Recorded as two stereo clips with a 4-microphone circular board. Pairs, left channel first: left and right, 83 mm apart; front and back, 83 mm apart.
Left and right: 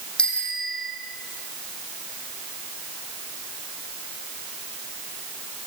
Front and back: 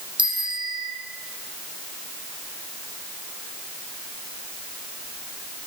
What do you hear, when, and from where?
0.2 s a bicycle bell: 170° left, 5 m